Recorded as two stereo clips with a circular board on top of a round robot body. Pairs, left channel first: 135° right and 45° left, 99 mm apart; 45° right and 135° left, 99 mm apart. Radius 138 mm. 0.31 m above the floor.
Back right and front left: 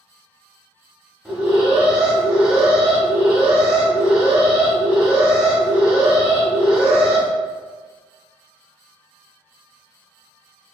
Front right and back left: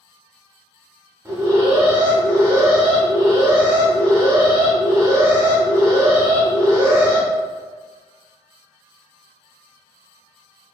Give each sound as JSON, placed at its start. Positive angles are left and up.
{"t": 1.2, "sound": "an alarm", "azimuth_deg": 120, "distance_m": 1.4}